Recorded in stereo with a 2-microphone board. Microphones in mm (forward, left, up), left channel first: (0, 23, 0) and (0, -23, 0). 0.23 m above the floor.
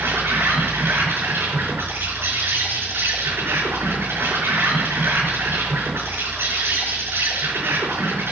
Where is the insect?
65° right (ahead or behind), 5.5 m.